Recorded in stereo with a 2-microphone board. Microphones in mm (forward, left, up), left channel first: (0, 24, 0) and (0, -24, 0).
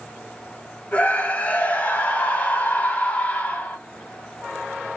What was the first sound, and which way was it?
A scream, 30° left (ahead or behind).